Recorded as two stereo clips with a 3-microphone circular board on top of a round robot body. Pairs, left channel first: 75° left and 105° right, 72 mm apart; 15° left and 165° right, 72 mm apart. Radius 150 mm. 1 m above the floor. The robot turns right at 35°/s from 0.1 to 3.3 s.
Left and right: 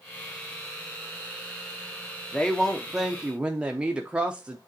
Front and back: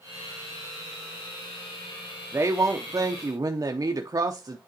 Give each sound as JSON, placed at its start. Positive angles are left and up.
{"t": 2.3, "sound": "a woman speaking", "azimuth_deg": 145, "distance_m": 0.9}